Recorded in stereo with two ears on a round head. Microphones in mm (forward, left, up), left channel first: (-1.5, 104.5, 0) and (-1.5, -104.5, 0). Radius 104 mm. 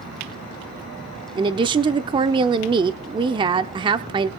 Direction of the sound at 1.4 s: 20° right (ahead or behind).